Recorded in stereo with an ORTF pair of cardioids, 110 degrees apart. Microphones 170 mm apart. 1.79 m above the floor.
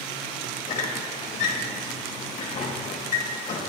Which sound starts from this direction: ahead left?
A squeak, at 0.7 s.